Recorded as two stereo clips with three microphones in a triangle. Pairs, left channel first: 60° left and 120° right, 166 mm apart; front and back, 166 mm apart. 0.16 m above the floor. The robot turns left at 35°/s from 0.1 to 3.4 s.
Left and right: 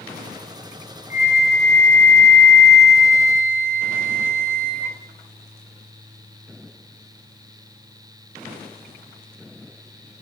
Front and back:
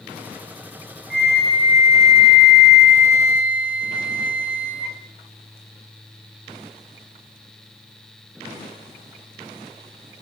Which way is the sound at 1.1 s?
25° left.